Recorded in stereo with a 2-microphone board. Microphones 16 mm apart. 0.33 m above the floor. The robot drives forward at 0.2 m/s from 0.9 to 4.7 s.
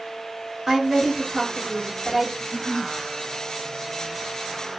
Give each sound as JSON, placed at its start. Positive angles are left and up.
{"t": 0.7, "sound": "a woman speaking", "side_deg": -35, "distance_m": 1.6}
{"t": 2.4, "sound": "a giggle", "side_deg": -40, "distance_m": 0.7}